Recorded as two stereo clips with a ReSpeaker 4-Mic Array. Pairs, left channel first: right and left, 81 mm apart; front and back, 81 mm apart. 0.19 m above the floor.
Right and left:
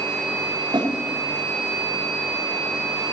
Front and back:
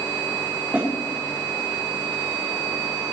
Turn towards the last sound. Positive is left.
turn(degrees=110)